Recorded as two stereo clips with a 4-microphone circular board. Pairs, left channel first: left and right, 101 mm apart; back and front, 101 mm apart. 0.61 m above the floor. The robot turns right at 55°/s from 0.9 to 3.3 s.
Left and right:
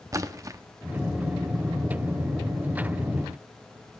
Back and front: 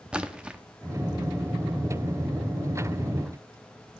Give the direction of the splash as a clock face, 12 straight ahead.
2 o'clock.